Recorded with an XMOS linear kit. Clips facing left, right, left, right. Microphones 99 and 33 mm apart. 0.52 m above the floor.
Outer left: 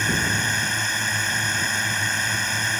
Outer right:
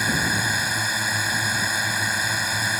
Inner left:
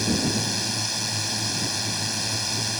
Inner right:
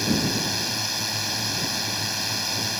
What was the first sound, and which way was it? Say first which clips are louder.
A drone: even, inner right 1 dB; 10° right (ahead or behind).